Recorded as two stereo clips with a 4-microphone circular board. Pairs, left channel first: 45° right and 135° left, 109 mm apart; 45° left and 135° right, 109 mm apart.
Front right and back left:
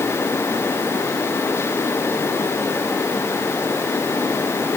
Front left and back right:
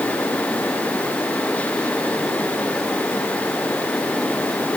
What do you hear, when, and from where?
Only background noise.